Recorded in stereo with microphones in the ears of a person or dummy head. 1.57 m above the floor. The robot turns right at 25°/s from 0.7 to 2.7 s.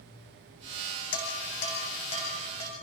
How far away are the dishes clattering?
About 7 m.